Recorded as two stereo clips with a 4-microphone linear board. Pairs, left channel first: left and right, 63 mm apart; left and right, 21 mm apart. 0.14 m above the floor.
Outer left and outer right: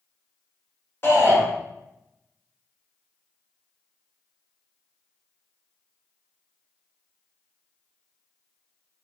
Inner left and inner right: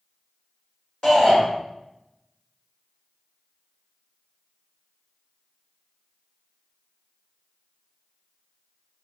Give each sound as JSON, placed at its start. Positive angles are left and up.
{"t": 1.0, "sound": "a shout", "side_deg": 40, "distance_m": 1.6}